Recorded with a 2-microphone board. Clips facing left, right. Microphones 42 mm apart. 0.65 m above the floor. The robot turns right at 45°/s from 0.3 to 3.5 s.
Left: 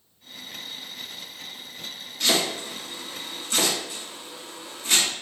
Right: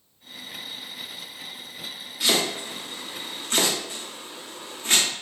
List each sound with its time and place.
2.2 s chopping: 10° right (ahead or behind), 1.2 m; by 5.1 s 45° right (ahead or behind), 1.2 m